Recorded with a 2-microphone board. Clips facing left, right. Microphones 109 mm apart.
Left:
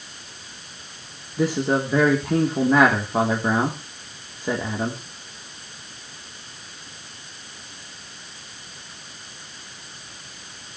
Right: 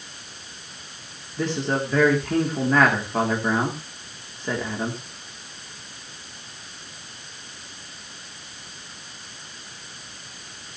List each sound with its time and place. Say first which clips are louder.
1.4 s a man speaking: left 3 dB; 10° left (ahead or behind), 2.5 m